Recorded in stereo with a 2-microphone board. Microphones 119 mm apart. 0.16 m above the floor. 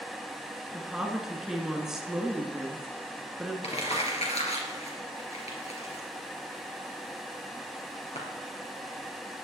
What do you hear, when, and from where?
0.7 s a woman speaking: 5° right (ahead or behind), 1.7 m
3.6 s crumpling: 65° left (ahead or behind), 3.5 m